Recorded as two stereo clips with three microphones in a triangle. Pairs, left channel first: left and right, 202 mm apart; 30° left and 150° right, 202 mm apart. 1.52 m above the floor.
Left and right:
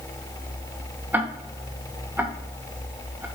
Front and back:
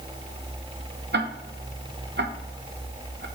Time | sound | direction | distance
1.1 | ticking | 170° right | 1.1 m